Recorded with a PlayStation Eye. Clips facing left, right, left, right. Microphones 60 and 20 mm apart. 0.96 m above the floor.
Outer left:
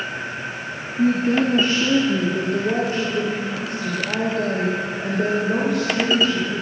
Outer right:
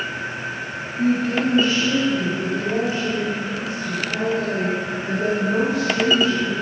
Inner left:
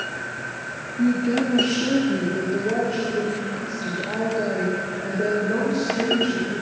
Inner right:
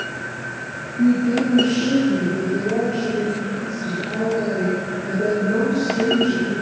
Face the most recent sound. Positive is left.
turn(degrees=55)  # may be behind; listen again after turning